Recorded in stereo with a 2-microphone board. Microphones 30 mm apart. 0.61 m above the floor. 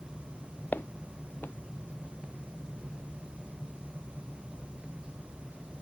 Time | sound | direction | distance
0.7 | footsteps | 85° left | ?